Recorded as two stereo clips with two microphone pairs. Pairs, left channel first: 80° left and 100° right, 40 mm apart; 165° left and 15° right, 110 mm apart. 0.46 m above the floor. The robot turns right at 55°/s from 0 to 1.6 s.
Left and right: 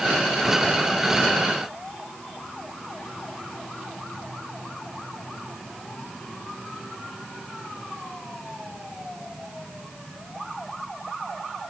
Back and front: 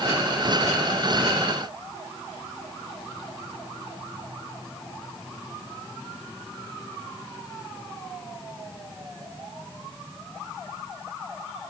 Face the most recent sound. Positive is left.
No sound to turn to.